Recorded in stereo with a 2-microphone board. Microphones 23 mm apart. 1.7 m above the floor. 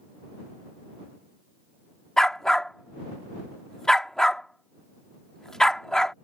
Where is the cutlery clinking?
I don't hear cutlery clinking.